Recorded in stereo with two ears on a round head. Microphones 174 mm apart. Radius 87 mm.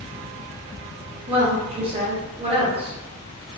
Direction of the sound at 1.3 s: 25° right (ahead or behind).